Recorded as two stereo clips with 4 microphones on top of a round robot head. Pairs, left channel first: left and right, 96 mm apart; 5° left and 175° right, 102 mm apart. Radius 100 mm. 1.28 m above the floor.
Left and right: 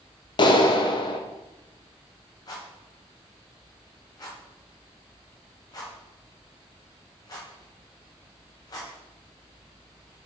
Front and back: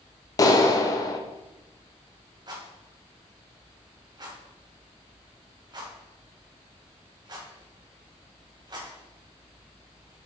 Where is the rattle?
140° left, 1.9 m.